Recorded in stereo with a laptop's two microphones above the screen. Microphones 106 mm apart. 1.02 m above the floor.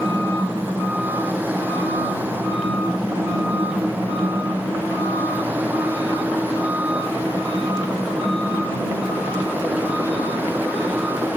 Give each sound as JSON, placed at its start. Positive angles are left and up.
{"t": 0.0, "sound": "a fan", "side_deg": -15}